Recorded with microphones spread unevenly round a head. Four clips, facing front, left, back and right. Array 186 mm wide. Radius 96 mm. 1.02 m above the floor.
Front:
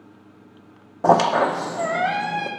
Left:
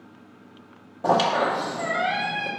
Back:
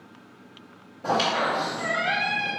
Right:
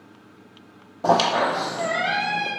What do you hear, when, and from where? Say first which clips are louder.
1.0 s a squeak: right 1 dB, front 8 dB; 5° right, 0.7 m